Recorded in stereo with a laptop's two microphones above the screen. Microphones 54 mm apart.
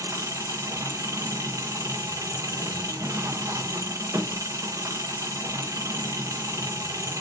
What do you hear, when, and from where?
0.0 s an engine running: 75° right (ahead or behind), 0.8 m